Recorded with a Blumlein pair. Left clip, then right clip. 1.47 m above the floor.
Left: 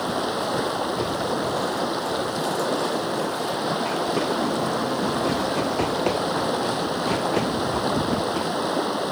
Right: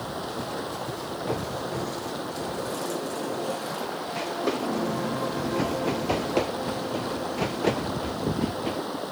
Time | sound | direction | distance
0.0 | running water | 25° left | ?